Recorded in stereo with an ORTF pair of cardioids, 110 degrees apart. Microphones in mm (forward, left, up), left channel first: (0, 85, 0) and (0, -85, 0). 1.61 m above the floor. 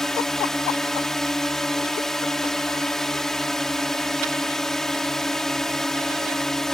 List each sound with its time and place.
0.0 s a drone: 5° left